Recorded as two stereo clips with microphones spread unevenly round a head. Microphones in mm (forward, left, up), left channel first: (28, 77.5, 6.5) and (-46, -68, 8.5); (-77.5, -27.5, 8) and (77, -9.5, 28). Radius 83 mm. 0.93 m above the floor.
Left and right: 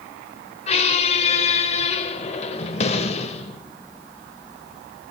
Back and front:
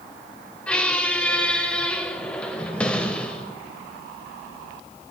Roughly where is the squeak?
Left.